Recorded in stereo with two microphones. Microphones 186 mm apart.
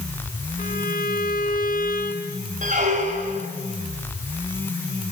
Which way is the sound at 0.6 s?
55° left (ahead or behind).